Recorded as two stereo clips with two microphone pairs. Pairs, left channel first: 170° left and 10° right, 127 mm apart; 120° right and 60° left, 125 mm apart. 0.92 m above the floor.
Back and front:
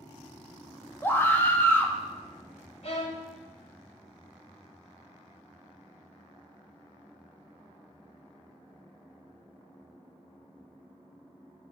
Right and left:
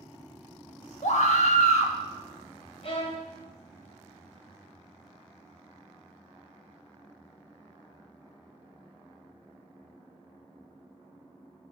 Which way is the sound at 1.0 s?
120° right.